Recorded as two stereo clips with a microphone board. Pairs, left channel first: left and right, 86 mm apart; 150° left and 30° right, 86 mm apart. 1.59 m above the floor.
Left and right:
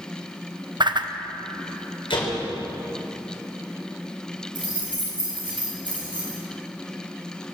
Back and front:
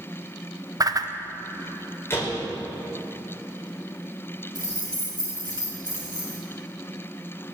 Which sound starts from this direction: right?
A whoosh, at 0.8 s.